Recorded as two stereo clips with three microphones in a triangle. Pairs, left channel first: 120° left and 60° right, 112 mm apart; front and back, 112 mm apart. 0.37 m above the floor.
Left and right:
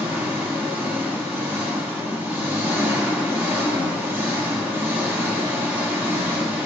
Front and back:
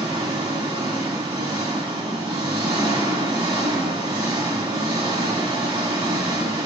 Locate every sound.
0.0 s an engine running: 135° right, 1.3 m